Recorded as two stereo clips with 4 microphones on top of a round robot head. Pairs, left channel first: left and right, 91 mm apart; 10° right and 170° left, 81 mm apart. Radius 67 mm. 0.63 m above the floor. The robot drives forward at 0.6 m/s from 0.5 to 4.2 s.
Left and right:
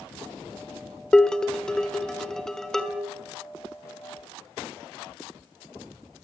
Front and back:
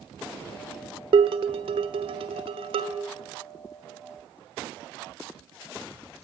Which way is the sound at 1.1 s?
170° left.